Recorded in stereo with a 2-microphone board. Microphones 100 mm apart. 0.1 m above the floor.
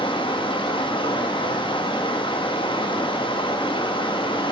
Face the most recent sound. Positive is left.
turn(degrees=60)  # may be behind; listen again after turning